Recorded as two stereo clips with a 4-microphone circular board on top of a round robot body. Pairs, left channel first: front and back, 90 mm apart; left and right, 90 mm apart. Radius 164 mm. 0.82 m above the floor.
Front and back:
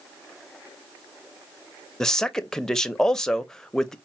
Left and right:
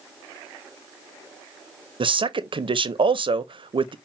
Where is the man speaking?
85° right, 0.7 m.